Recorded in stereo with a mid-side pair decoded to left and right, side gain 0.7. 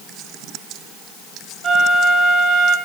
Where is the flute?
35° right, 7.5 m.